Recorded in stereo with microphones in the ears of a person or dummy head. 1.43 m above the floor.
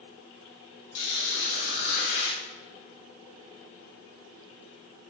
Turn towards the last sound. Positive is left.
turn(degrees=55)  # may be behind; listen again after turning